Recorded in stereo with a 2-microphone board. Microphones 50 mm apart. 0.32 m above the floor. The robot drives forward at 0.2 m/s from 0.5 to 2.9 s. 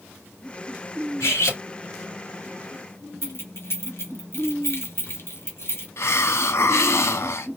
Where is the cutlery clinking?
60° left (ahead or behind), 2.5 m; by 1.6 s 65° left (ahead or behind), 2.5 m.